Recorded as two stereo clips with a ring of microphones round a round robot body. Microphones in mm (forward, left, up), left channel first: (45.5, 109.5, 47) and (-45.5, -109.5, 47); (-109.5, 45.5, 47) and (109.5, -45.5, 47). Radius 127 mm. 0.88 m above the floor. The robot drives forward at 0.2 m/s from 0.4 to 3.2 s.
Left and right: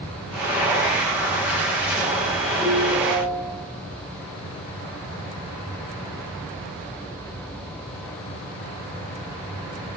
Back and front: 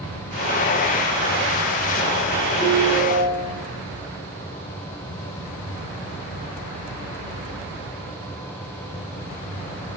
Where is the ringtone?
85° left, 7 m.